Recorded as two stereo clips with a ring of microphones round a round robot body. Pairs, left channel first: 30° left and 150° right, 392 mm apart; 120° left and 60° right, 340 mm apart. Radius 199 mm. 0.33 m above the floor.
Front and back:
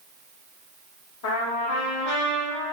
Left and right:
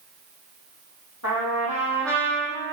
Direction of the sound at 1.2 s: 80° left.